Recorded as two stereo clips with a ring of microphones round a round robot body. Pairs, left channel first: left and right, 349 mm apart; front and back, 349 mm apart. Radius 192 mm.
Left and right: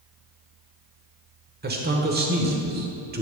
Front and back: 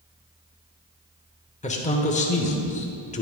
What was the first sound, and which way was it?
A man speaking, 55° right.